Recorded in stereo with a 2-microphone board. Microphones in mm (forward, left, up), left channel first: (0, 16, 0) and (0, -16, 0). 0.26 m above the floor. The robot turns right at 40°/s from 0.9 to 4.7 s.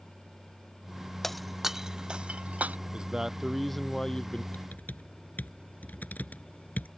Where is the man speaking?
30° right; by 4.4 s 30° left.